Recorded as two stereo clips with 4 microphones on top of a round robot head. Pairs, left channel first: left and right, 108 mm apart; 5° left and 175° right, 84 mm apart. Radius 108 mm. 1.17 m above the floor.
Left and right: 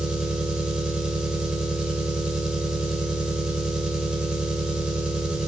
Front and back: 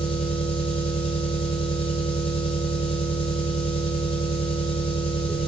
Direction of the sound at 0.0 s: 5° right.